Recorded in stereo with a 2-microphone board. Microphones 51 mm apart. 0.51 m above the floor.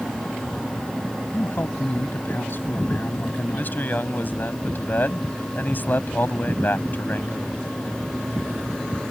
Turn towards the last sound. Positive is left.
turn(degrees=45)  # may be behind; listen again after turning